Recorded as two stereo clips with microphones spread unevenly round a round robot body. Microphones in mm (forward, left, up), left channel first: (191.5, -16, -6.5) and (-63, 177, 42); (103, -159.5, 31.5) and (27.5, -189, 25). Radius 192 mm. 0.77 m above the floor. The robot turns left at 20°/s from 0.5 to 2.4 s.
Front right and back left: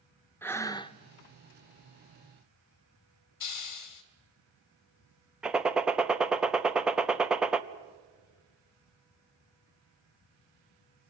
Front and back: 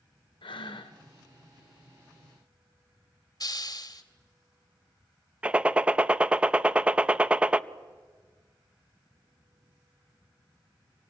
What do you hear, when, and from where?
0.4 s breathing: 50° left, 0.8 m; by 1.0 s 40° left, 0.8 m
3.4 s a hiss: 20° right, 2.5 m
5.4 s a gunshot: 115° right, 0.6 m